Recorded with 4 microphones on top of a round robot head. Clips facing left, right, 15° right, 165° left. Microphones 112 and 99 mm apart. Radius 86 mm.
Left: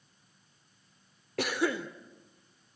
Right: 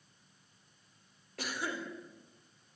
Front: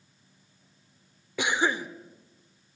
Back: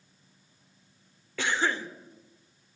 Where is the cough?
60° left, 1.5 m.